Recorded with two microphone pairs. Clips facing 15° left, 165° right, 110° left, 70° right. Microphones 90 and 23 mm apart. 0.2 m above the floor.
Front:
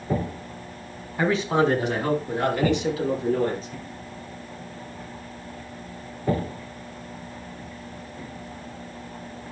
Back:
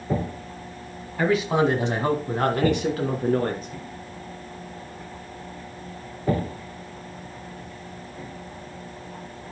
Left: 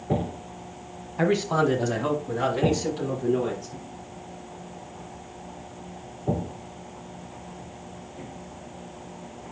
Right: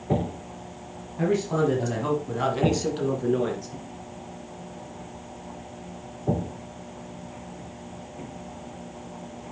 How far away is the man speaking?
About 1.7 m.